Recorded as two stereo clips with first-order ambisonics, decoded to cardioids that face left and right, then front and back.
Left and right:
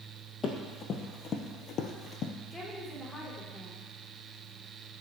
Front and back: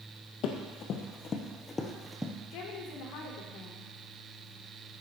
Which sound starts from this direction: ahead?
A woman speaking, at 2.5 s.